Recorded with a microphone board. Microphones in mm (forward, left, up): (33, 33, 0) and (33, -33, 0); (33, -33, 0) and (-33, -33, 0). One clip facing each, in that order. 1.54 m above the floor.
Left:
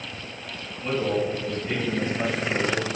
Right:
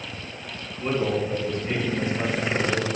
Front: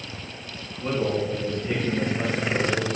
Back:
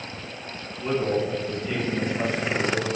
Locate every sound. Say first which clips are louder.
0.8 s a man speaking: even, back 1 dB; 35° right, 3 m